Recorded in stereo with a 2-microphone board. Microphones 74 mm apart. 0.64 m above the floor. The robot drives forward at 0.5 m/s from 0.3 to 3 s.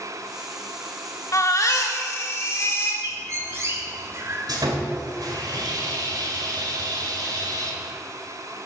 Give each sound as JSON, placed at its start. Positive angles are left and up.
{"t": 1.3, "sound": "a baby crying", "side_deg": 55, "distance_m": 1.2}
{"t": 3.0, "sound": "a bird", "side_deg": -45, "distance_m": 1.6}
{"t": 4.5, "sound": "sawing", "side_deg": -75, "distance_m": 2.0}